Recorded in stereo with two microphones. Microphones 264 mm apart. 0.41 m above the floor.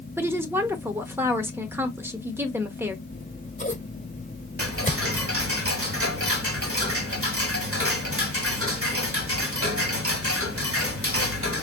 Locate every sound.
0.2 s a woman speaking: 10° right (ahead or behind), 0.7 m
3.1 s scissors: 30° left (ahead or behind), 1.0 m
4.6 s ticking: 55° right (ahead or behind), 1.1 m